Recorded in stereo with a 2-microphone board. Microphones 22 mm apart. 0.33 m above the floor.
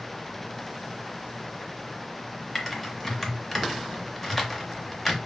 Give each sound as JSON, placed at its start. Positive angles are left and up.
{"t": 2.5, "sound": "typing on a keyboard", "side_deg": 15, "distance_m": 0.6}